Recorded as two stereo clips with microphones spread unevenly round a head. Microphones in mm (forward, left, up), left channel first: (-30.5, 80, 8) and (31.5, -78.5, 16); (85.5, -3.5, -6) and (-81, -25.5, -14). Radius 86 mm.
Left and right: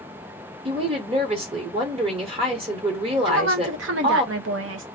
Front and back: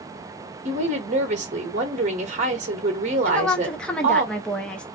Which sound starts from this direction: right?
A woman speaking, at 3.2 s.